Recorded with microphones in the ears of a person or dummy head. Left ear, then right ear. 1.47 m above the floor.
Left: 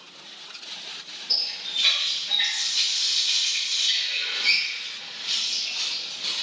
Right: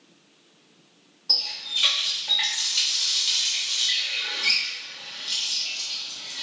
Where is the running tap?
20° right (ahead or behind), 0.7 m.